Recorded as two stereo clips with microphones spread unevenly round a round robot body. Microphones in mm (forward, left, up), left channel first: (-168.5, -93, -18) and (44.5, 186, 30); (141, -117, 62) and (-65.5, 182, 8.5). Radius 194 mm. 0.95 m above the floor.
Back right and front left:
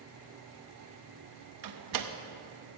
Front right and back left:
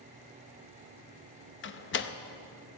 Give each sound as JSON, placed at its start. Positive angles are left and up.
{"t": 1.6, "sound": "a door slam", "azimuth_deg": 5, "distance_m": 0.7}